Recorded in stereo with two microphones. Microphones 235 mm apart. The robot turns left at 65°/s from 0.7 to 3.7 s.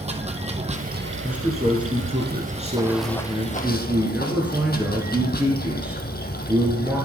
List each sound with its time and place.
0.0 s running water: 30° right, 1.2 m; by 7.1 s 135° left, 1.2 m
1.2 s a man speaking: 5° right (ahead or behind), 1.8 m